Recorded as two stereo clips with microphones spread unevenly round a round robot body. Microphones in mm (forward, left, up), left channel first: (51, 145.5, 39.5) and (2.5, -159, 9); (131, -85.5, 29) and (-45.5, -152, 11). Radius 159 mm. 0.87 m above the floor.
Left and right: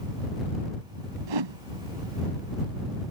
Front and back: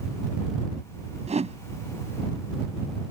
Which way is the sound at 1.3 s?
100° right.